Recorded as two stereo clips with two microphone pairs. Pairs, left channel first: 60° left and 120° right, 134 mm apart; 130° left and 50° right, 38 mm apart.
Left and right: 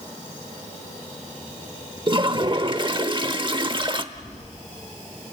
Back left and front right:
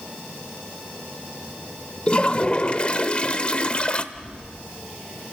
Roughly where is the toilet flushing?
Behind.